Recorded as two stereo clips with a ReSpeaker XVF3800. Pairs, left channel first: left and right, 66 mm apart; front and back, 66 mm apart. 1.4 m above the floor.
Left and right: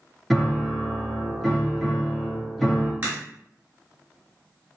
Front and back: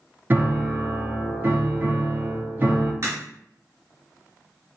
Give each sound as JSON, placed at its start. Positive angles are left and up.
{"t": 0.3, "sound": "a piano", "azimuth_deg": 180, "distance_m": 0.7}
{"t": 3.0, "sound": "a crack", "azimuth_deg": -145, "distance_m": 1.5}